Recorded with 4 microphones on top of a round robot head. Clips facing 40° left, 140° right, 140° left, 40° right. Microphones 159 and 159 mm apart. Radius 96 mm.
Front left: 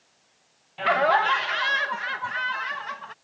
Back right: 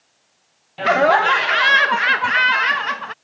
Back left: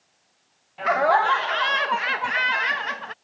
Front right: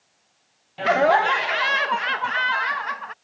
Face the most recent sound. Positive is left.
turn(degrees=-160)